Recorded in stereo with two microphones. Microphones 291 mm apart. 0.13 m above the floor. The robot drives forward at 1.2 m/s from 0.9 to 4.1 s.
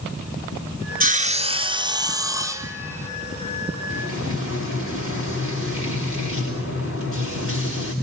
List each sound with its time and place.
1.0 s sawing: 30° right (ahead or behind), 0.9 m; by 3.1 s 10° right (ahead or behind), 3 m
3.9 s frying: 50° left (ahead or behind), 6.5 m; by 7.9 s 45° left (ahead or behind), 6.5 m